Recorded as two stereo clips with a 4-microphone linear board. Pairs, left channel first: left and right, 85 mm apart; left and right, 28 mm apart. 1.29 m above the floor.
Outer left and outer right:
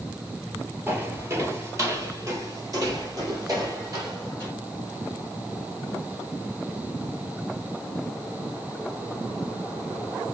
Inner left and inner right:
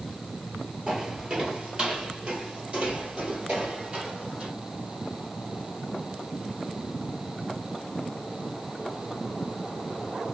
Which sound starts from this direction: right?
Footsteps, at 0.9 s.